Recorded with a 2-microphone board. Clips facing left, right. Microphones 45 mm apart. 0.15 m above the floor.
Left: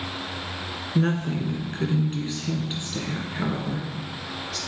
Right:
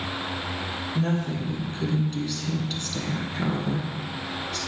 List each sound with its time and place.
0.9 s a woman speaking: 45° left (ahead or behind), 1.4 m; by 4.6 s 5° right (ahead or behind), 1.8 m